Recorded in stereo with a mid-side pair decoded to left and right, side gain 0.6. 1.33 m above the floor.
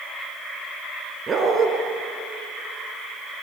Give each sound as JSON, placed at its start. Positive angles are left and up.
{"t": 1.3, "sound": "a dog barking", "azimuth_deg": -25, "distance_m": 5.5}